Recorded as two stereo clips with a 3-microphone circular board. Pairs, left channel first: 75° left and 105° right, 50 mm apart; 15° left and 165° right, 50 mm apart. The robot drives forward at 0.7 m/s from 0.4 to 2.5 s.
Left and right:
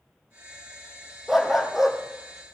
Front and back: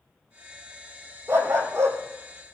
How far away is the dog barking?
About 1.9 m.